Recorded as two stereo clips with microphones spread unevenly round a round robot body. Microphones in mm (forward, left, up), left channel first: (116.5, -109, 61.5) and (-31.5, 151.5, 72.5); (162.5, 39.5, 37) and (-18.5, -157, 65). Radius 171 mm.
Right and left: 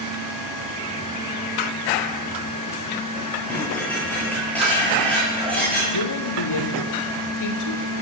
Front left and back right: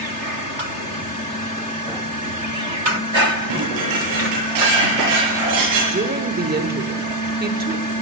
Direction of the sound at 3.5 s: 145° right.